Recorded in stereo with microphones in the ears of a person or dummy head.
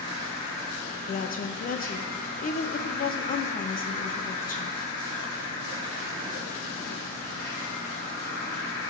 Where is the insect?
10° left (ahead or behind), 5 m.